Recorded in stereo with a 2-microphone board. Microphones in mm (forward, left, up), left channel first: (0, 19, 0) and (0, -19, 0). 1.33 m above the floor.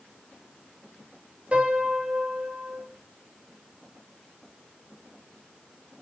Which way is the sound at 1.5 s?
35° right (ahead or behind).